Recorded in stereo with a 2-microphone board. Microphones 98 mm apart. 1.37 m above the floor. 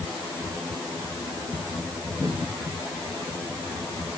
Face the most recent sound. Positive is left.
No sound to turn to.